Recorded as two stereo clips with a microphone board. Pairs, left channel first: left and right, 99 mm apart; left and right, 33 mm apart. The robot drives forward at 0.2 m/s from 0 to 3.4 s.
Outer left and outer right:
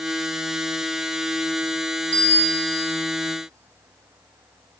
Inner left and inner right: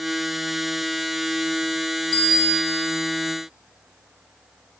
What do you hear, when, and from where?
2.1 s a bicycle bell: 15° left (ahead or behind), 2.5 m; by 2.9 s 10° left (ahead or behind), 2.5 m